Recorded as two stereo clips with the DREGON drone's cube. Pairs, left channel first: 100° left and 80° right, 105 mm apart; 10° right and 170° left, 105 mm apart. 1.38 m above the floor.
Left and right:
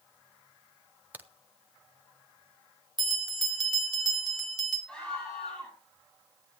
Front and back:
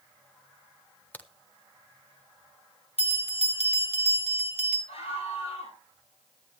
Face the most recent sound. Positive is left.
turn(degrees=20)